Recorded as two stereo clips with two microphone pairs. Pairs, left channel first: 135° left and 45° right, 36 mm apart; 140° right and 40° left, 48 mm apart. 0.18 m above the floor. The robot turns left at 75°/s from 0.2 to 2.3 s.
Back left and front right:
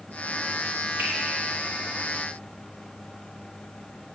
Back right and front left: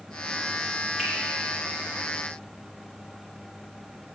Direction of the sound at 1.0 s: 65° right.